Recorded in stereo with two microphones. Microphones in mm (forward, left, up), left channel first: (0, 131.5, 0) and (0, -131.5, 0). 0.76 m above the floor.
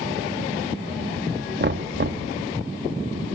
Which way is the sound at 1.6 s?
45° right (ahead or behind).